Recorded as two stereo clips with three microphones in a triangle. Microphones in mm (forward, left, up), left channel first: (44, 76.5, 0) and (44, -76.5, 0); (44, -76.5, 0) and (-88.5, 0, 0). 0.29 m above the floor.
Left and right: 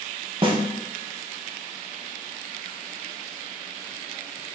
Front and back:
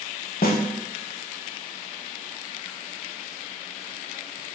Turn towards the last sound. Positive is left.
turn(degrees=-35)